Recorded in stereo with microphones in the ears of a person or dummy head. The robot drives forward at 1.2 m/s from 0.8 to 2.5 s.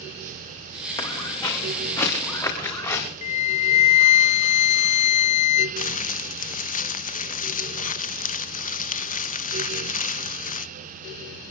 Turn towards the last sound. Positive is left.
turn(degrees=40)  # may be behind; listen again after turning